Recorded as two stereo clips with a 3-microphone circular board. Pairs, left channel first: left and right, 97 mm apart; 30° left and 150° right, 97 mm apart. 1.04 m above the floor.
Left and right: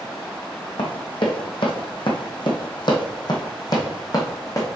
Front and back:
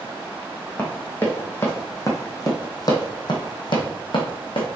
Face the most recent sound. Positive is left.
turn(degrees=40)